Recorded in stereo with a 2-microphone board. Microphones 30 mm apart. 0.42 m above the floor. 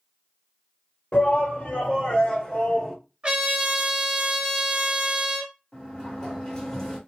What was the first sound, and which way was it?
A shout, 45° left (ahead or behind).